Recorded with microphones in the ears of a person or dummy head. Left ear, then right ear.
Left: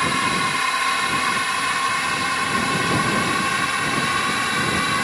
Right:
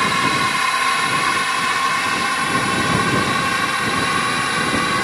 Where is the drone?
Centre (ahead or behind); by 5.0 s 5° left (ahead or behind).